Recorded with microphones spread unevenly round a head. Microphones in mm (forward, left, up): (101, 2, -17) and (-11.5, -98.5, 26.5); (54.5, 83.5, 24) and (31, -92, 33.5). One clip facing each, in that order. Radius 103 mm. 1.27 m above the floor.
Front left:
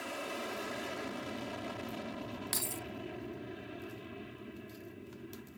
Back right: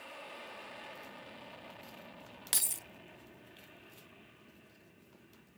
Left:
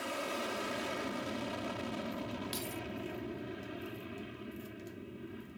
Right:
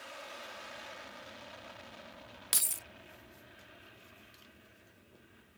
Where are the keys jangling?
95° right.